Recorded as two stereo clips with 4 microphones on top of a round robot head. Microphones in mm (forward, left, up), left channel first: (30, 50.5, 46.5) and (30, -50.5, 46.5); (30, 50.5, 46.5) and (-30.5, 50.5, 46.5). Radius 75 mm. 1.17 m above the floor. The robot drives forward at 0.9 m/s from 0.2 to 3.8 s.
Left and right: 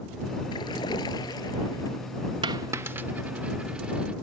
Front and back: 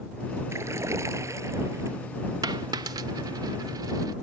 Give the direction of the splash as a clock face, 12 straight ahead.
7 o'clock.